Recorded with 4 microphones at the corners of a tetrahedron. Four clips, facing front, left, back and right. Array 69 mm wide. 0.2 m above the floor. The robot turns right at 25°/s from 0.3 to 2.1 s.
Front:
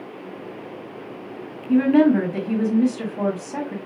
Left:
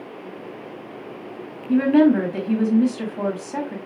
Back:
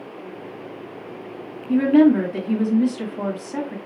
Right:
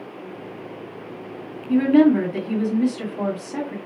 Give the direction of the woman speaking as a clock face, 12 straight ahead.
11 o'clock.